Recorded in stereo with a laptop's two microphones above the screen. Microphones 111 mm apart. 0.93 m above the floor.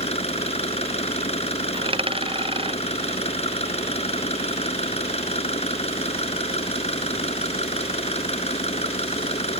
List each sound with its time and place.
0.0 s an engine running: 70° left (ahead or behind)
1.7 s a dropped coin: 55° right (ahead or behind)